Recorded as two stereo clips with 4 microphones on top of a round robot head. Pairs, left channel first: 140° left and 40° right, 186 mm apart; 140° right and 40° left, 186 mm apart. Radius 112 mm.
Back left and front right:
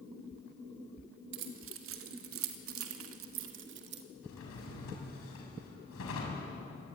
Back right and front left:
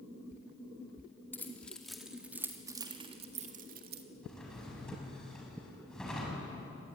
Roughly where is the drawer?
Behind left.